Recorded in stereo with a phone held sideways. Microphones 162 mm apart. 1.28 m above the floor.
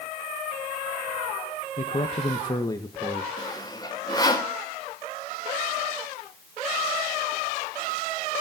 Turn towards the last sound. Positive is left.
turn(degrees=25)  # may be behind; listen again after turning